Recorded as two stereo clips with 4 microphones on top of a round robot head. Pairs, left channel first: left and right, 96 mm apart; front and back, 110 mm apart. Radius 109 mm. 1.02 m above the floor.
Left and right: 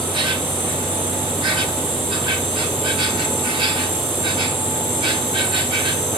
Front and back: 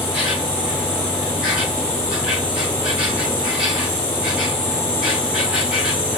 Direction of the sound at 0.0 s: 100° right.